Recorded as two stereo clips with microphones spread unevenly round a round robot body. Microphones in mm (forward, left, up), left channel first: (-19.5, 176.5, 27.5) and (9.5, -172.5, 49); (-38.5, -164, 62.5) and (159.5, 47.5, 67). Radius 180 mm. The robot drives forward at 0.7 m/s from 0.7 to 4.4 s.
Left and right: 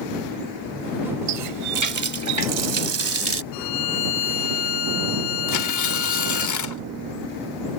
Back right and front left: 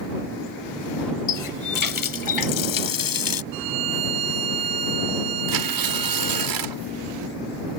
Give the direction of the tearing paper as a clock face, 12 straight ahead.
10 o'clock.